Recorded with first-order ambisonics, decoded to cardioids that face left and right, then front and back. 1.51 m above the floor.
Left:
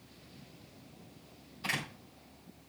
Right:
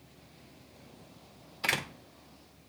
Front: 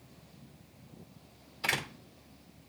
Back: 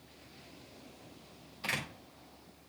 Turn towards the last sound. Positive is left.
turn(degrees=-70)